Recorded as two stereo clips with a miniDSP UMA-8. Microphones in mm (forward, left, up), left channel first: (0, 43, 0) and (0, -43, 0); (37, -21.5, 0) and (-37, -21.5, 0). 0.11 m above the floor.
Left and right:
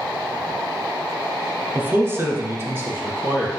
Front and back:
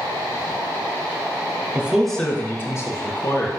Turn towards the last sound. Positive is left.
turn(degrees=-25)